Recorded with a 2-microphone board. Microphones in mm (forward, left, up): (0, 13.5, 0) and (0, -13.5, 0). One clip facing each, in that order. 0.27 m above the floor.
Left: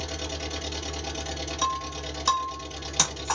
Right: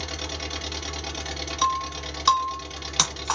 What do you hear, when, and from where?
0.0 s an engine running: 40° right (ahead or behind), 0.9 m
1.6 s breaking glass: 35° right (ahead or behind), 1.4 m